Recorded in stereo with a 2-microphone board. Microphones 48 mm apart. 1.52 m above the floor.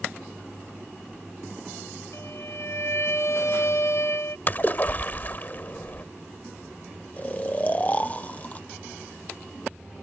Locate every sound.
2.1 s a violin: 60° left (ahead or behind)
4.5 s a splash: 40° left (ahead or behind)
7.2 s snoring: 30° left (ahead or behind)